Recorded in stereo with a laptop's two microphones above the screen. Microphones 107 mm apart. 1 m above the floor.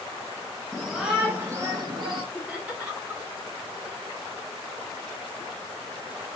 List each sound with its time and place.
0.7 s a shout: 5° left (ahead or behind), 1.2 m; by 2.2 s 50° right (ahead or behind), 1.5 m
2.3 s laughter: 10° right (ahead or behind), 2.5 m